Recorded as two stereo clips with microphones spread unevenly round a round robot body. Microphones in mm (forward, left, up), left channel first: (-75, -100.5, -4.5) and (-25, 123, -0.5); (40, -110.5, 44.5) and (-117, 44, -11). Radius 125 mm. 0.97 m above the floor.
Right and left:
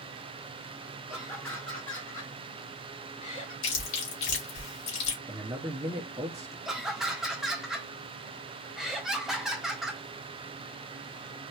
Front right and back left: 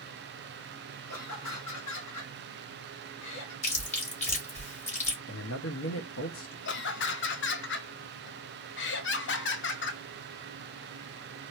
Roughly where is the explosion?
I don't hear an explosion.